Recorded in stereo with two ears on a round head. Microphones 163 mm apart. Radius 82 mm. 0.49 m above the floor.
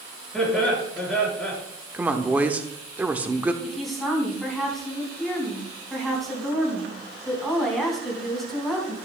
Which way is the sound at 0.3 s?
5° left (ahead or behind).